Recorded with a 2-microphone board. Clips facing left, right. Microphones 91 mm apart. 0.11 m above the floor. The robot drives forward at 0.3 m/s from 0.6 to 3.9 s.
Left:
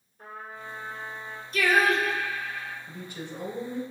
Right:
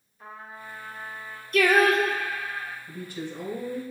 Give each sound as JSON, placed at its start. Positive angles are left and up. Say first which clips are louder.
{"t": 0.2, "sound": "a trumpet", "louder": "left 1 dB", "side_deg": 45, "distance_m": 1.2}
{"t": 1.5, "sound": "singing", "louder": "right 3 dB", "side_deg": -60, "distance_m": 0.6}
{"t": 2.9, "sound": "a woman speaking", "louder": "right 3 dB", "side_deg": 20, "distance_m": 1.3}